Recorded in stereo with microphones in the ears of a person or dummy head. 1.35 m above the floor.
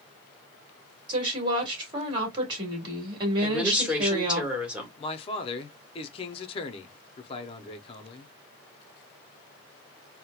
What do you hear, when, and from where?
1.1 s a woman speaking: 30° right (ahead or behind), 1.8 m
3.4 s a woman speaking: 5° right (ahead or behind), 1.2 m
5.0 s a man speaking: 35° left (ahead or behind), 0.6 m